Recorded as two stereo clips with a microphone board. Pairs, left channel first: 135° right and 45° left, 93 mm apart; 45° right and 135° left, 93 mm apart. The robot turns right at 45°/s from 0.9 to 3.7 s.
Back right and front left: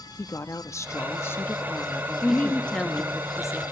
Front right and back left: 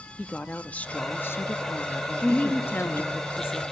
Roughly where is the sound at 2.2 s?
Right.